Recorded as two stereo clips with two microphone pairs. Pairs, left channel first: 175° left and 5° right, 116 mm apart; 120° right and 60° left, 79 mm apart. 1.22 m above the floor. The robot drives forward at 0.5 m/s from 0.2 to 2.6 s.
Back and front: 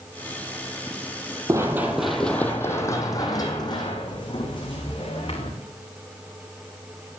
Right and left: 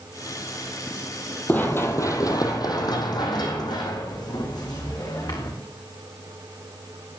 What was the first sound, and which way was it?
Running footsteps, 55° right.